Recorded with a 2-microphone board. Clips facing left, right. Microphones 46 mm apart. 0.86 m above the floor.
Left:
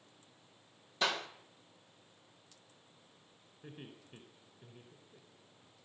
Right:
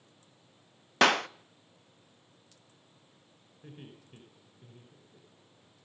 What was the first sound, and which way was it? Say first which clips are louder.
A clap: right 11 dB; 70° right (ahead or behind).